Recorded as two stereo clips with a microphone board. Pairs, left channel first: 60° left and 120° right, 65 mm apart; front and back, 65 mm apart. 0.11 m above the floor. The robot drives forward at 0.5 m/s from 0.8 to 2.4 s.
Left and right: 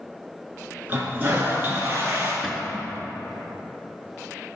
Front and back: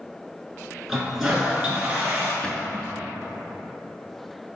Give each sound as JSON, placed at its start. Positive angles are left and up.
{"t": 0.9, "sound": "a toilet flushing", "azimuth_deg": -95, "distance_m": 1.5}
{"t": 2.4, "sound": "a cupboard door", "azimuth_deg": -40, "distance_m": 0.6}